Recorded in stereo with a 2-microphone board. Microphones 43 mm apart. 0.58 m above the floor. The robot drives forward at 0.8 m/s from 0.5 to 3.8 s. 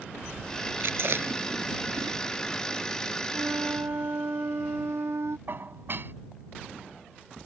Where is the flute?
90° right.